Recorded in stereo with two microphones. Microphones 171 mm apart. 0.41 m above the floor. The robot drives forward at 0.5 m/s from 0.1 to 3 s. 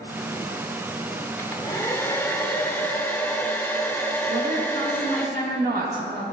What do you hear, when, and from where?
1.4 s a hair dryer: 15° left (ahead or behind), 1.0 m; by 5.3 s 10° left (ahead or behind), 1.4 m
4.3 s a woman speaking: 75° right (ahead or behind), 6.5 m